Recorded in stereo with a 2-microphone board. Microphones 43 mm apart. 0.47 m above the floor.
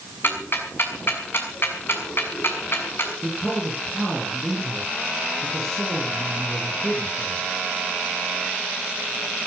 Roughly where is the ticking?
Left.